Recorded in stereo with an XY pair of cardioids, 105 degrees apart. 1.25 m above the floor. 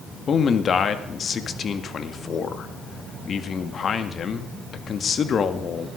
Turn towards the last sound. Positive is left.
turn(degrees=45)